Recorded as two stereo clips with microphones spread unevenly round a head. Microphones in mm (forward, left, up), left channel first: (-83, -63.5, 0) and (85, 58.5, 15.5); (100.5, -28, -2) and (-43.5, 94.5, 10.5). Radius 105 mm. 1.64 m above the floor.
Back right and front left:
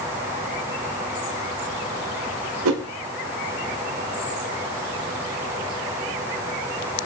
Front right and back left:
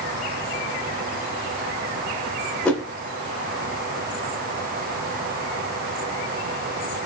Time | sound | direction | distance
2.6 | a whoosh | 45° left | 0.6 m